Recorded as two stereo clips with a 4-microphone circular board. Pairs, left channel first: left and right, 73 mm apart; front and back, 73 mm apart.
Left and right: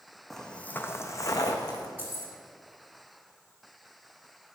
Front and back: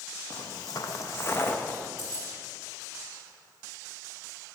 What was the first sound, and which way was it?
Footsteps, 5° left.